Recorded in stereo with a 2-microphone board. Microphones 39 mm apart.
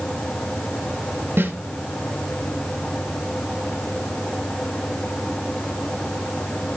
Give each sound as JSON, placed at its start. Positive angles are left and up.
{"t": 1.4, "sound": "a snare drum", "side_deg": -70, "distance_m": 1.6}